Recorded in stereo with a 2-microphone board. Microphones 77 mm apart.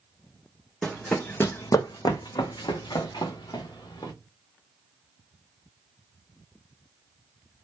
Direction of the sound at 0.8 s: Centre (ahead or behind).